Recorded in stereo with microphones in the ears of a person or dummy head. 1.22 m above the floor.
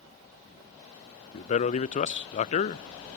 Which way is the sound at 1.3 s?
40° left (ahead or behind).